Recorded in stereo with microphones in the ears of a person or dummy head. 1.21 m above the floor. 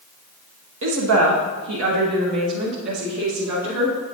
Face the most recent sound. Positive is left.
turn(degrees=-85)